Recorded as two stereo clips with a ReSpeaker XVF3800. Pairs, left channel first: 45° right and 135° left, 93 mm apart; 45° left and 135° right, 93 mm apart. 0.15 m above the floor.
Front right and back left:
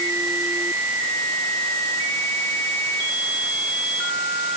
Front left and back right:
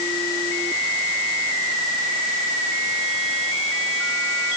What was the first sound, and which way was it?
Only background noise.